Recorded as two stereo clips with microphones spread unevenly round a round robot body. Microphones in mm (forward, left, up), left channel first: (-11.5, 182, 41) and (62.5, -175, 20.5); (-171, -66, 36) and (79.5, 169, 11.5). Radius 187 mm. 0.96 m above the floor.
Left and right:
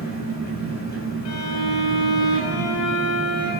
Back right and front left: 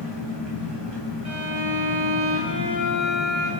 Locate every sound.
0.0 s an engine running: 35° left, 4 m
1.2 s a violin: 90° left, 5 m